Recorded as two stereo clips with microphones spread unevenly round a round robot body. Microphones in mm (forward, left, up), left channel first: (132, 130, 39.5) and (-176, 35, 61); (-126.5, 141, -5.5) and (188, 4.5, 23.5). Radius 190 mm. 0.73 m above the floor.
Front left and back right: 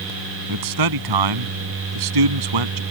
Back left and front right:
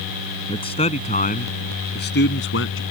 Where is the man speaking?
125° right; by 2.8 s 145° right.